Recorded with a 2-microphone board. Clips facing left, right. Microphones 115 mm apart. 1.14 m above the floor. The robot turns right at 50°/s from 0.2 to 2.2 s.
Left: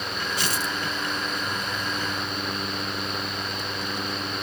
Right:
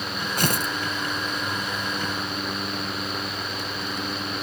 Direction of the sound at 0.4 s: 55° right (ahead or behind).